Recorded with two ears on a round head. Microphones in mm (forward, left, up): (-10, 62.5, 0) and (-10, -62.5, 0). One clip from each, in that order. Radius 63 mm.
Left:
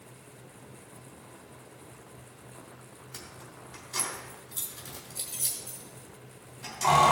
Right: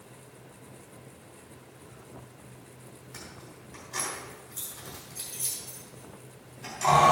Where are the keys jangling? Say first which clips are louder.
Even; 25° left (ahead or behind), 3 m.